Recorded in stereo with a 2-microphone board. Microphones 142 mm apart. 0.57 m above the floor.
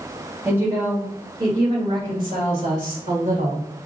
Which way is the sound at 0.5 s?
15° right (ahead or behind).